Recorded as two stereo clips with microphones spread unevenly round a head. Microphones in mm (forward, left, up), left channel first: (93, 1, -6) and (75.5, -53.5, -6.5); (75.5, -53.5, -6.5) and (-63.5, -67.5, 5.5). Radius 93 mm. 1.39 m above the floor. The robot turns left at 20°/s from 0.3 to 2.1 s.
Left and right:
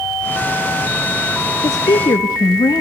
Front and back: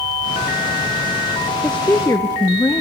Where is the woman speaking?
90° left, 0.7 m; by 2.8 s 85° left, 0.7 m.